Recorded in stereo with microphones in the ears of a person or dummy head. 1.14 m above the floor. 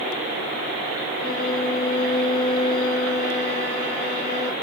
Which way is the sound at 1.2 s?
45° left (ahead or behind).